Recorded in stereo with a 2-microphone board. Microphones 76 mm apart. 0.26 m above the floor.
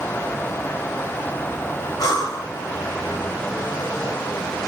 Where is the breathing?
60° left (ahead or behind), 1.1 m.